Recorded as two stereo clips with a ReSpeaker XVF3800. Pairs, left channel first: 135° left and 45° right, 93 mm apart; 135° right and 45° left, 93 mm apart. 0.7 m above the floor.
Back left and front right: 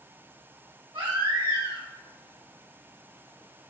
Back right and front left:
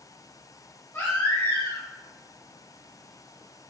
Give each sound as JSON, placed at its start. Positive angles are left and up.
{"t": 0.9, "sound": "a baby crying", "azimuth_deg": -70, "distance_m": 2.0}